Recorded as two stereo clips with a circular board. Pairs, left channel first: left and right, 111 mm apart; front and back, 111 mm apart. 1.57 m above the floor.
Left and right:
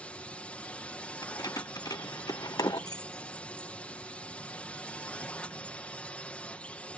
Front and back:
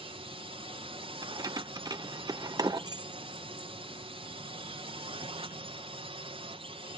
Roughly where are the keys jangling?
Behind left.